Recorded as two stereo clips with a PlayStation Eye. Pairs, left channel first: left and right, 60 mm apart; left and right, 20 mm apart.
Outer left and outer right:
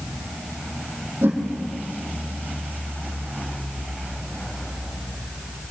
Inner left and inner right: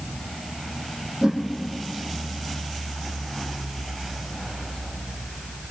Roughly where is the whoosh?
Right.